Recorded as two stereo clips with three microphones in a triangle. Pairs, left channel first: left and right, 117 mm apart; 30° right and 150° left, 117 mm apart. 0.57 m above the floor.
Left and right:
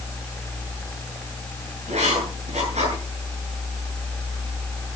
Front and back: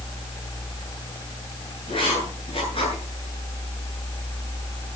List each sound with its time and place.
1.9 s writing: 70° right, 9 m